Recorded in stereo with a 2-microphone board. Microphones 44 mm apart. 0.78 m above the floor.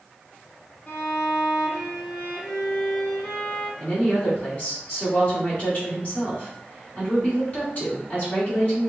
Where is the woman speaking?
40° left (ahead or behind), 2 m.